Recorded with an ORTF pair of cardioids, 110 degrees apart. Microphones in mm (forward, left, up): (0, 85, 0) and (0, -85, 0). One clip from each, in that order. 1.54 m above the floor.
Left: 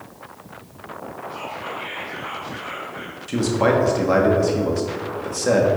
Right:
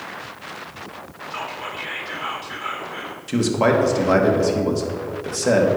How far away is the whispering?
About 1.7 m.